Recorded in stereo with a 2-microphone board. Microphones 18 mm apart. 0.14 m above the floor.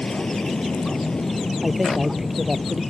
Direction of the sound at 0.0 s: 55° left (ahead or behind).